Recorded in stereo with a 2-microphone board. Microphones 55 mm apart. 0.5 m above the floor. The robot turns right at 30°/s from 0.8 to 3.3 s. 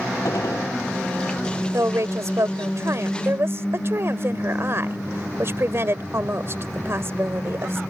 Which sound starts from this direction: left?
A gunshot, at 0.2 s.